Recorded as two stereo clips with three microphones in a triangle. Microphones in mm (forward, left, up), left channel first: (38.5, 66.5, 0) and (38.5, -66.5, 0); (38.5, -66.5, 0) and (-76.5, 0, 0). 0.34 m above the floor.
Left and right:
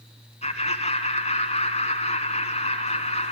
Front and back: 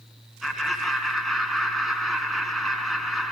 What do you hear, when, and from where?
0.4 s laughter: 60° left, 3.5 m